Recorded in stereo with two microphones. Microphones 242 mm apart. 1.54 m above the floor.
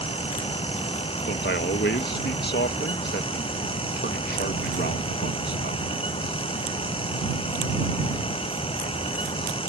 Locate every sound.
1.3 s a man speaking: 45° left (ahead or behind)